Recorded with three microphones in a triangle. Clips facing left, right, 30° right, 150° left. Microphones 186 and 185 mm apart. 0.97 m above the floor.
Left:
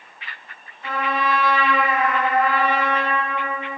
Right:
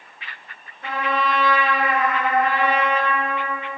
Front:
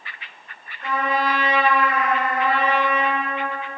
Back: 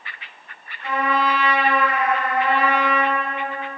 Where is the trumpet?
70° right, 0.9 m.